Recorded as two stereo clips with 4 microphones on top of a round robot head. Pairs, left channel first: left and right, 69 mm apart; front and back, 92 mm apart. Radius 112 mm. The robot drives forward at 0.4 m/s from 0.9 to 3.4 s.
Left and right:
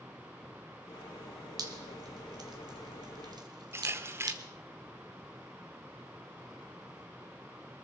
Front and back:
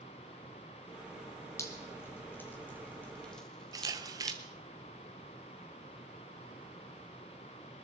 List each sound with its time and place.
1.6 s dripping: 65° right, 2 m; by 4.4 s 85° right, 1.8 m
3.7 s a camera shutter: 140° right, 1.2 m